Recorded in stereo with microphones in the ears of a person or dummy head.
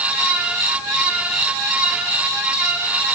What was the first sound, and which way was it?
Only background noise.